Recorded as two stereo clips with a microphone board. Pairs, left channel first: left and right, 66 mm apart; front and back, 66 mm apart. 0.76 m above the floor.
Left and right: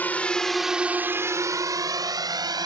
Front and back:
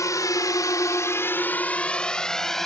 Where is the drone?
25° left; by 2.7 s 85° right.